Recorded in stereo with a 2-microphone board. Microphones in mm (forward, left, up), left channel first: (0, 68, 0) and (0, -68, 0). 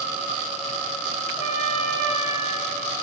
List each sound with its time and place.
1.4 s a trumpet: 60° left (ahead or behind), 1.5 m